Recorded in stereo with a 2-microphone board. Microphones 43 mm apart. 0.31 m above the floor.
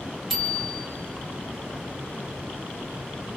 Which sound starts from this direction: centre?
A bicycle bell, at 0.3 s.